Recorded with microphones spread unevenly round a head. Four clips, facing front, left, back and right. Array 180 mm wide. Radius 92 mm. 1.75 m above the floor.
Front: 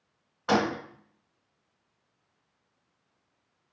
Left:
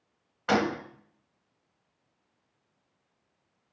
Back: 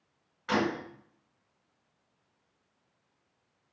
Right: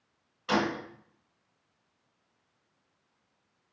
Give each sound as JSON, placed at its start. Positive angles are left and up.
{"t": 0.5, "sound": "a gunshot", "azimuth_deg": 50, "distance_m": 1.2}